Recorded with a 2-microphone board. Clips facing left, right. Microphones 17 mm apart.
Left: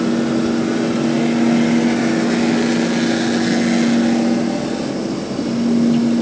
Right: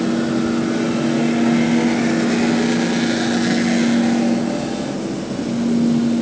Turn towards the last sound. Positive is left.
No sound to turn to.